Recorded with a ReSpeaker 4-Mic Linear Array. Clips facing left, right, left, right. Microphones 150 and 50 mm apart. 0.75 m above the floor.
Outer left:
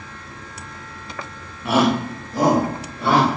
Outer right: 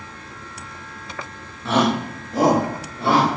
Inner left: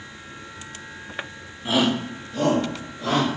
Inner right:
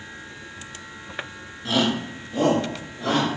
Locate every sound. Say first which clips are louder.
1.6 s a shout: outer left 1 dB, inner left 1 dB; 15° left (ahead or behind), 0.6 m; by 3.3 s 30° right (ahead or behind), 1.7 m